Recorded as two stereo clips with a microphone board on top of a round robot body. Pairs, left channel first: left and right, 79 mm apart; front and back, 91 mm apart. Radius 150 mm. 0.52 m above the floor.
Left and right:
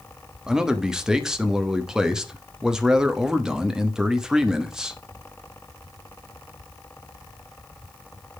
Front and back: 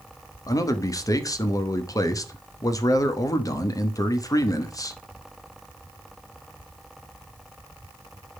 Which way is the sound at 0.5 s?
15° right.